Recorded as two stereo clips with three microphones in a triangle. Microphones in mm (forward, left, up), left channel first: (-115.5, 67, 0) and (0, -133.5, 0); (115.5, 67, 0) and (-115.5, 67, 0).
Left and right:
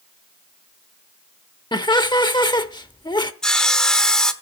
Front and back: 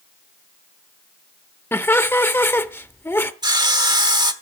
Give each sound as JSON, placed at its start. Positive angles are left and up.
{"t": 1.7, "sound": "laughter", "azimuth_deg": 70, "distance_m": 0.9}
{"t": 3.4, "sound": "sawing", "azimuth_deg": -160, "distance_m": 1.0}